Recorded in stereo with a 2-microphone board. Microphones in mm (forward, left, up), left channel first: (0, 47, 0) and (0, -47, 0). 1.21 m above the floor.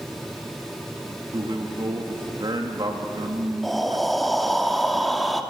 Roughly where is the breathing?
Centre.